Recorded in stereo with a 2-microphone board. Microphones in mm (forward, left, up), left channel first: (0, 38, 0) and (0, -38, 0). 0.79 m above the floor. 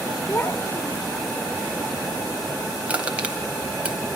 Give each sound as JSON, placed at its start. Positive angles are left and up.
{"t": 0.3, "sound": "a child speaking", "side_deg": 35, "distance_m": 1.3}
{"t": 2.9, "sound": "crushing", "side_deg": -15, "distance_m": 2.0}